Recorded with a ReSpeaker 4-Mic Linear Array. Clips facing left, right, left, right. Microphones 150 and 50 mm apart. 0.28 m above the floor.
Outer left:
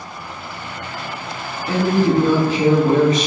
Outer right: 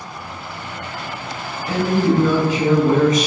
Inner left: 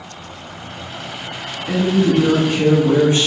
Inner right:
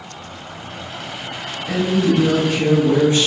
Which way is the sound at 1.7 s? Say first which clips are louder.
Outer left 1 dB, inner left 2 dB; 30° left (ahead or behind).